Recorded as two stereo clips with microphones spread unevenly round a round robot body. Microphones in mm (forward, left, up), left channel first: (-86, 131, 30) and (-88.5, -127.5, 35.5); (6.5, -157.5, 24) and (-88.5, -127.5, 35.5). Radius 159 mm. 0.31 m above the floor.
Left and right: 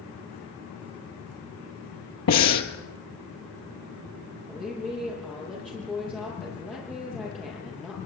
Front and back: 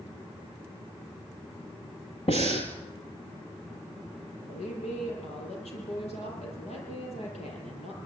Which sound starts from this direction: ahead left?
Breathing, at 2.3 s.